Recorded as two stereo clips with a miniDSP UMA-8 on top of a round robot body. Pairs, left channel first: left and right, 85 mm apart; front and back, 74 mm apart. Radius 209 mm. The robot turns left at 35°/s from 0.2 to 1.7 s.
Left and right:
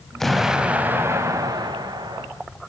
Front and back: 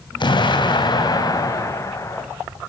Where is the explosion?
5° left, 4 m; by 2.3 s 50° right, 4 m.